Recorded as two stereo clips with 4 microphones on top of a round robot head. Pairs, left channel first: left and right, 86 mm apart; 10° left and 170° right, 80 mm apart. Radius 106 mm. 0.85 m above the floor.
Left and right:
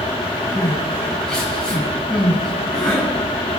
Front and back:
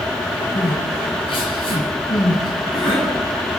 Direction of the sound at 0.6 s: 10° left.